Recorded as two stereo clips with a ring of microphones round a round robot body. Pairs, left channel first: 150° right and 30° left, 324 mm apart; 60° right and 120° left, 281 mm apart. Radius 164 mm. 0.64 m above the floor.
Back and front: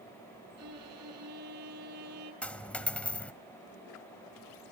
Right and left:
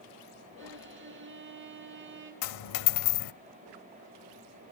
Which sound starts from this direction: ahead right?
A dropped coin, at 2.4 s.